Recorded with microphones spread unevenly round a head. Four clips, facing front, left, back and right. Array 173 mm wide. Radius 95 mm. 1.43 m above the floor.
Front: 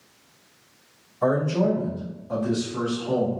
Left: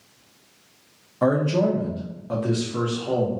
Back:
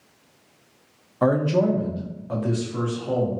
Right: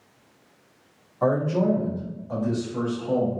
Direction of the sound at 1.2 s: 135° left.